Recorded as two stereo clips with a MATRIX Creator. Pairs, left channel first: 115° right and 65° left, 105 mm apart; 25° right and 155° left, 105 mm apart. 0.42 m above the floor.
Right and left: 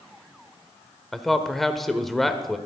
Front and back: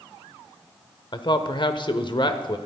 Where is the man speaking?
25° right, 1.0 m.